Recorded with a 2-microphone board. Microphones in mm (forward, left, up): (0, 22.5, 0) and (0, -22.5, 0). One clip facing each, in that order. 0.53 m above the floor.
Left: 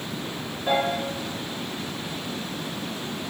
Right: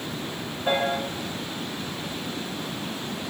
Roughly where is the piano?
Right.